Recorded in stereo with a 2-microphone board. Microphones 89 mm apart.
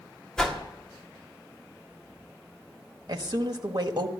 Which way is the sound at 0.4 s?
10° left (ahead or behind).